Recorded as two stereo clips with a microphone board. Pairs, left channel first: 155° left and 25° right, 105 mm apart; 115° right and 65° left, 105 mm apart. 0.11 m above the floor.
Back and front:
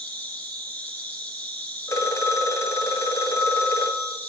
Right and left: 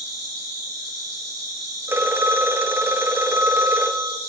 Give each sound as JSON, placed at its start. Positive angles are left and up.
{"t": 0.0, "sound": "an insect", "azimuth_deg": 95, "distance_m": 2.5}
{"t": 1.9, "sound": "a phone ringing", "azimuth_deg": 120, "distance_m": 0.9}